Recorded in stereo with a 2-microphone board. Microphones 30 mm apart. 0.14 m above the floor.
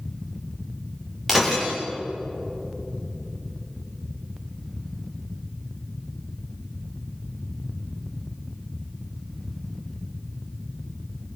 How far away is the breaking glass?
About 9 m.